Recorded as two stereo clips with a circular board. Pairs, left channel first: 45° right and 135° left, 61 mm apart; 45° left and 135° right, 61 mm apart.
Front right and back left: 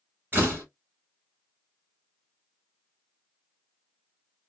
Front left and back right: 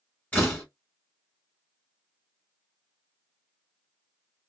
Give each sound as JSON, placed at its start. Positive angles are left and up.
{"t": 0.3, "sound": "a door slam", "azimuth_deg": 100, "distance_m": 1.4}